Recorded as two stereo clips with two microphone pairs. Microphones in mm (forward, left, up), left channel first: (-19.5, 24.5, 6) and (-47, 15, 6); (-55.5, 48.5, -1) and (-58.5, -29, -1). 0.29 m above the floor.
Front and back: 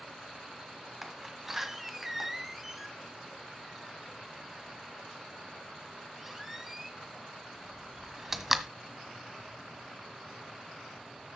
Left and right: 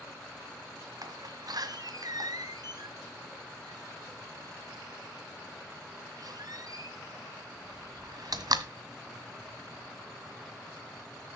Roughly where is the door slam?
Right.